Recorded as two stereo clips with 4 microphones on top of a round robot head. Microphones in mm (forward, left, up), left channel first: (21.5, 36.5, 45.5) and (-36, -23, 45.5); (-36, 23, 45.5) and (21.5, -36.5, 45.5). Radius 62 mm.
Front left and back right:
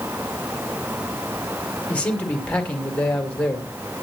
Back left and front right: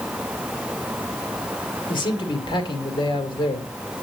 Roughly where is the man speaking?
Behind left.